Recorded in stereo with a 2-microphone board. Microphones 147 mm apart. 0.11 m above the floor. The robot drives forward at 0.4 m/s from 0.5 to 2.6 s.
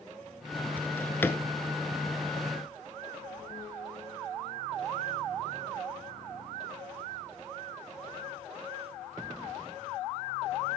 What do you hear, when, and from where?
0.8 s a drawer: 15° left (ahead or behind), 0.8 m